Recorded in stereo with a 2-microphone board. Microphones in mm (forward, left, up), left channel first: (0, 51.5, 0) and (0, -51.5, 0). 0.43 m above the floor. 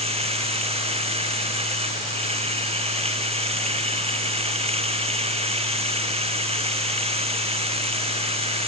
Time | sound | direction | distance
0.0 | running water | 75° right (ahead or behind) | ?